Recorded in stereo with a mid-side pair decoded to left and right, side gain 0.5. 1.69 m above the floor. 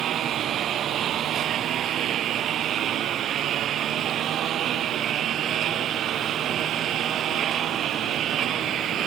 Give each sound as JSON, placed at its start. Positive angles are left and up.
{"t": 0.0, "sound": "a lawn mower", "azimuth_deg": -60}